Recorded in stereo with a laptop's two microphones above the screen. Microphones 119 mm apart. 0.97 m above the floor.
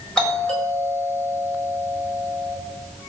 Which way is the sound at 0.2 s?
5° left (ahead or behind).